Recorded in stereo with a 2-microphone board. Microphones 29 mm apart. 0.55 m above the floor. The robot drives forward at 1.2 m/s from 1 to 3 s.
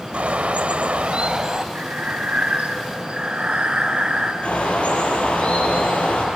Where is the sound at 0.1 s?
45° right (ahead or behind), 1.0 m; by 1.6 s 25° right (ahead or behind), 1.6 m.